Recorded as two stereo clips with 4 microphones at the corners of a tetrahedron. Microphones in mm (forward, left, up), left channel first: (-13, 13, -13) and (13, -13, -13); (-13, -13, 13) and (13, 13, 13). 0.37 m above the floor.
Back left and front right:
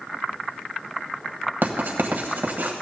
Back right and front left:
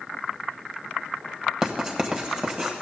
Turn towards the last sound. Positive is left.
turn(degrees=-30)